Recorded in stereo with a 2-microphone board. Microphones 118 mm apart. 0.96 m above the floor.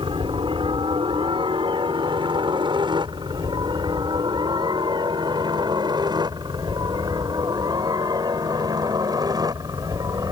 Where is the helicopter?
50° right (ahead or behind); by 10.3 s 35° right (ahead or behind).